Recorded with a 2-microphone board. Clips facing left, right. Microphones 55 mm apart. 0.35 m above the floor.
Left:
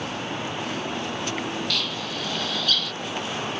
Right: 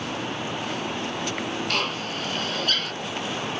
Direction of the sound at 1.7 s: 45° right (ahead or behind).